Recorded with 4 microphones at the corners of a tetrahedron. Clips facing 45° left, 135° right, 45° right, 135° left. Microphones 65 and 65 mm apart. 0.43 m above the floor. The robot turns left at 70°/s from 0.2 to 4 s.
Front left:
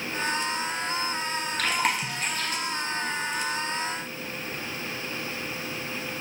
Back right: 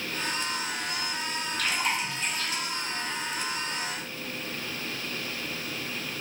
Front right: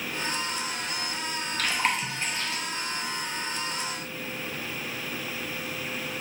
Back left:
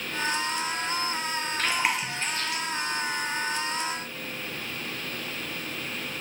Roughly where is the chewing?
Left.